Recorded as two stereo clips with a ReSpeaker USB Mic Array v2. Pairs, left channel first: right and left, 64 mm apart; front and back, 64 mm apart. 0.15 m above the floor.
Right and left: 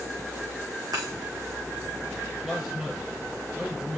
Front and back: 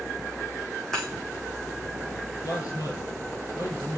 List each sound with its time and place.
0.9 s breaking glass: 80° left, 5 m
2.4 s a man speaking: 10° left, 5 m